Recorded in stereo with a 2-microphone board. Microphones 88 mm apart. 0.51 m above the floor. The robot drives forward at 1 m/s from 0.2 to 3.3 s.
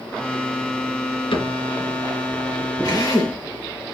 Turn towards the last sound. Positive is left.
turn(degrees=35)  # may be behind; listen again after turning